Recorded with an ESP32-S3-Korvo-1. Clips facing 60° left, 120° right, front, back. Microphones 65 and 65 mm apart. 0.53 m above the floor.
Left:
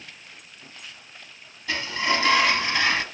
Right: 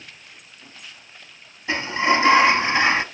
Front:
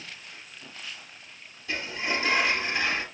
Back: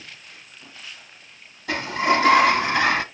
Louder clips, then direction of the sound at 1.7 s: Right 5 dB, back 10 dB; straight behind.